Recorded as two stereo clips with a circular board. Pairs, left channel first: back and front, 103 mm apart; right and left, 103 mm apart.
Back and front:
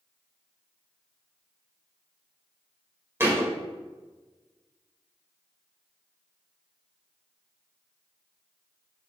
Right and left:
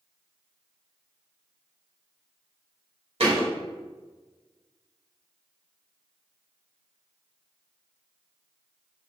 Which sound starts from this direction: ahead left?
A thud, at 3.2 s.